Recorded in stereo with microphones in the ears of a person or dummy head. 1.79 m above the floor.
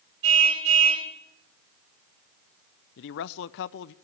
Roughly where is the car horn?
Right.